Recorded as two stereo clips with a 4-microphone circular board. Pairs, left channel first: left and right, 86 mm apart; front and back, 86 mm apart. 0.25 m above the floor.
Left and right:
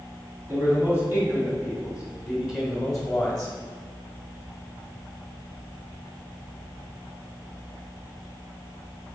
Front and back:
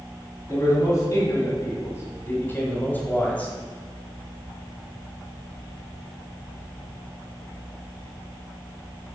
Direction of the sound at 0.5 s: 35° right.